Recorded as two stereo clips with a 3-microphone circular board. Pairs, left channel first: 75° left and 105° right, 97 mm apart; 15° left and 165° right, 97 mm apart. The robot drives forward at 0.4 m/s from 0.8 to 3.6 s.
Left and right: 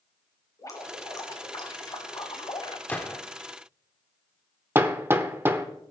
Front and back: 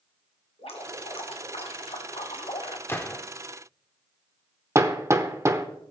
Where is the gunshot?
30° left, 1.0 m; by 3.2 s 40° left, 1.0 m.